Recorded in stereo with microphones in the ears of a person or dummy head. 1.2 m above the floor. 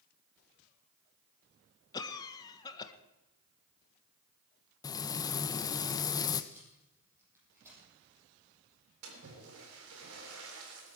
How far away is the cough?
About 1.2 m.